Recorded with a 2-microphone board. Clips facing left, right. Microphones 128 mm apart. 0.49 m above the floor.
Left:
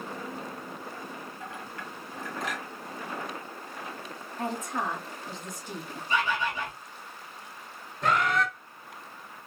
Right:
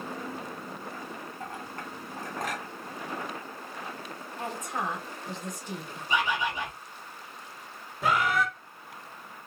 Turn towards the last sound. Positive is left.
turn(degrees=-5)  # may be behind; listen again after turning